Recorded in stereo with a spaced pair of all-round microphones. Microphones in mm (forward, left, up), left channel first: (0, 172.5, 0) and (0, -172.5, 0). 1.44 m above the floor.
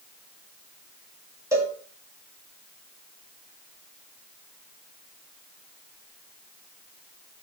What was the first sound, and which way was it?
A cowbell, 10° right (ahead or behind).